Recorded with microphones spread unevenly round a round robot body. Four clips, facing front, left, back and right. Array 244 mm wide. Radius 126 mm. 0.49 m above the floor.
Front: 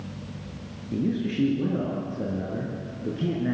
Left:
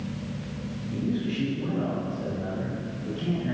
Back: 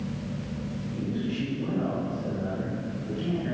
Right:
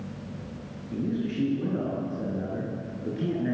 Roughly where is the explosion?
No explosion in this recording.